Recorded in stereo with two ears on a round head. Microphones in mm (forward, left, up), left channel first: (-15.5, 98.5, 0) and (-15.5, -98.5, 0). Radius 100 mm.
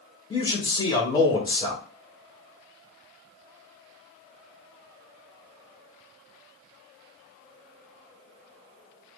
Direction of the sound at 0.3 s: 20° left (ahead or behind).